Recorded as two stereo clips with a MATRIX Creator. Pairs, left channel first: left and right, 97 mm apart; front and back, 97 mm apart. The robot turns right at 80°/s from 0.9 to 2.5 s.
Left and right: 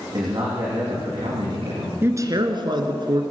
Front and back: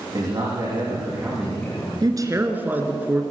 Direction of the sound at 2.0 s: 150° right.